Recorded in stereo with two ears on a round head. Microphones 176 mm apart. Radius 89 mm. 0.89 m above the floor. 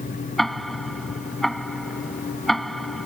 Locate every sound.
0.4 s ticking: centre (ahead or behind)